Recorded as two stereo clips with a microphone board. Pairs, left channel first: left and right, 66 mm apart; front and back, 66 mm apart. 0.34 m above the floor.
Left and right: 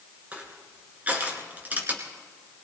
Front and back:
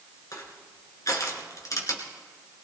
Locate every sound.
0.3 s crushing: 25° right, 2.5 m